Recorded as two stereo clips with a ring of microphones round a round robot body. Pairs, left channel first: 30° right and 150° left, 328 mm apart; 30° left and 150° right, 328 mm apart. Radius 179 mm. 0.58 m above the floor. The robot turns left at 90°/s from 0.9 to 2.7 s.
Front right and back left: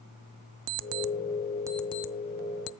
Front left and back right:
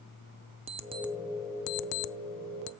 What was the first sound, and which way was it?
An alarm clock, 135° left.